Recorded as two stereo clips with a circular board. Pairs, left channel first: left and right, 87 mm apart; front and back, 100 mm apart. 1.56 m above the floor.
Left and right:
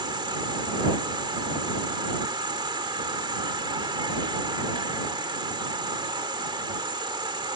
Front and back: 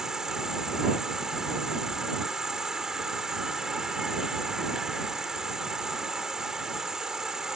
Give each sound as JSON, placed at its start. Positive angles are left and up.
{"t": 0.0, "sound": "an insect", "azimuth_deg": -95}